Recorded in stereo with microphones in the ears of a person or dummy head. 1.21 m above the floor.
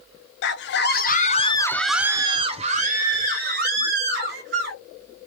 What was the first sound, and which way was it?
A scream, 60° left (ahead or behind).